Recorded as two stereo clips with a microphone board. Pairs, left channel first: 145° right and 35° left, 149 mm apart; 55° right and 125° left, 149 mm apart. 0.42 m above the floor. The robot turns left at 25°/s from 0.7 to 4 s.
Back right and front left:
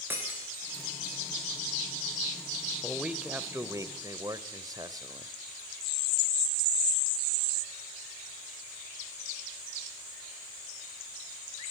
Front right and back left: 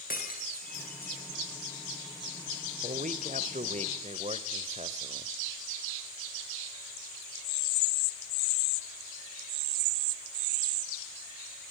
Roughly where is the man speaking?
Behind left.